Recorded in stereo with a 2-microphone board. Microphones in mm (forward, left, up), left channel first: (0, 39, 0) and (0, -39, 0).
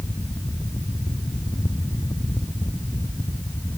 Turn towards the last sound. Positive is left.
No sound to turn to.